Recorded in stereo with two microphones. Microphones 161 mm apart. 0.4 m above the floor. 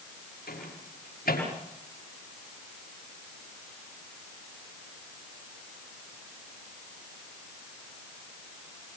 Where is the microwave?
70° left (ahead or behind), 6.5 m.